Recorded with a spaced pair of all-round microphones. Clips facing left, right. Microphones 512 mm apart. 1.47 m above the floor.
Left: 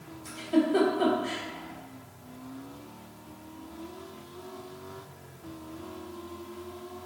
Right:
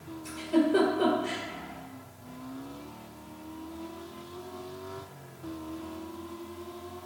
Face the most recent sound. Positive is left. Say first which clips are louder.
# even
turn(degrees=20)  # may be behind; listen again after turning